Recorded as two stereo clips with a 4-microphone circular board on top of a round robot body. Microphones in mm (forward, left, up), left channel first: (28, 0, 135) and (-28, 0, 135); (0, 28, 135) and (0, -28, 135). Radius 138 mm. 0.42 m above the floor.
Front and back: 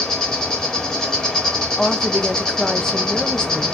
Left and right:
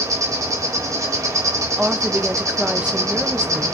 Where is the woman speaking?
55° right, 0.8 m.